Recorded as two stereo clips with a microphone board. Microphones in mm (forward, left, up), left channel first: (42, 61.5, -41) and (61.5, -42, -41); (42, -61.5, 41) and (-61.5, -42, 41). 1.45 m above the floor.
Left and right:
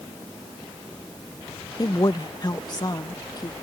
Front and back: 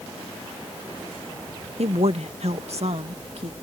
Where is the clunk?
No clunk in this recording.